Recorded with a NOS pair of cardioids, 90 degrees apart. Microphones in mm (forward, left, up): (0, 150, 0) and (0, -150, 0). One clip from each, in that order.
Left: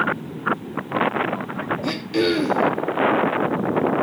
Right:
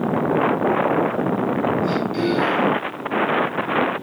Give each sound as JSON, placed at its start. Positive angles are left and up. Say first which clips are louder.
{"t": 1.8, "sound": "throat clearing", "louder": "even", "azimuth_deg": 65, "distance_m": 3.0}